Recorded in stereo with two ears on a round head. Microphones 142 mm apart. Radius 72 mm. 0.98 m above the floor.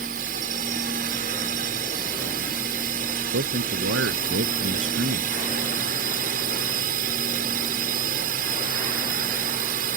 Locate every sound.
0.0 s a drone: 55° right (ahead or behind)
3.3 s a man speaking: 85° right